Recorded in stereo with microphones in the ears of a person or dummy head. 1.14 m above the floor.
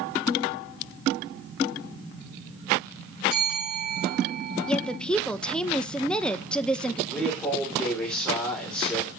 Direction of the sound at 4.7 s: 10° left (ahead or behind).